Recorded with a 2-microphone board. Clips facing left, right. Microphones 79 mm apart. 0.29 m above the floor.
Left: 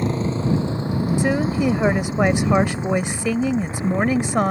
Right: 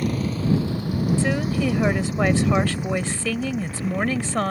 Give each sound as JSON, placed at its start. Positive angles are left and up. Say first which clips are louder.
{"t": 0.0, "sound": "a motorcycle", "louder": "left 2 dB", "side_deg": 25}
{"t": 1.2, "sound": "a woman speaking", "louder": "left 3 dB", "side_deg": 20}